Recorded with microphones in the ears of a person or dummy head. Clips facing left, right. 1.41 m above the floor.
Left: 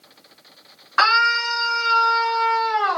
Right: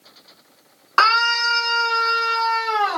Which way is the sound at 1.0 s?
65° right (ahead or behind).